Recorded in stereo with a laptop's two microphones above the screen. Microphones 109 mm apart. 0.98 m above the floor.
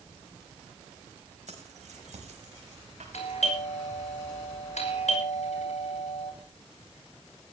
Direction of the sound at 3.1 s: 80° left.